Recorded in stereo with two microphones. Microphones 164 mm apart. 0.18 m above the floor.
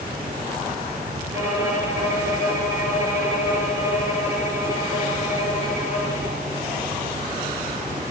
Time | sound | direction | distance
1.3 | a violin | 20° right (ahead or behind) | 1.5 m